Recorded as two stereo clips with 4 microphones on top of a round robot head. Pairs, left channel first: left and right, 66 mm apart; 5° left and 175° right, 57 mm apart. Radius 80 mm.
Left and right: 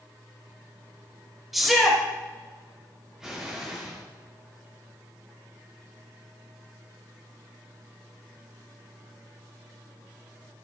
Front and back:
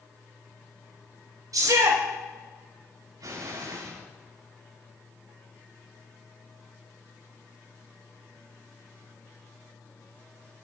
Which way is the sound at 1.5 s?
Straight behind.